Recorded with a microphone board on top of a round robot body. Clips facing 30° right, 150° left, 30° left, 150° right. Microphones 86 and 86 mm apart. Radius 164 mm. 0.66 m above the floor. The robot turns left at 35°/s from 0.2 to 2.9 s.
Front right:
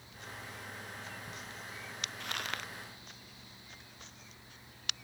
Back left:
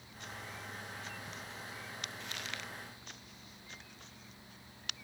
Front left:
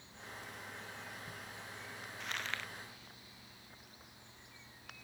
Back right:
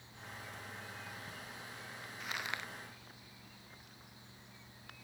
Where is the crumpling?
65° right; by 2.7 s 80° right.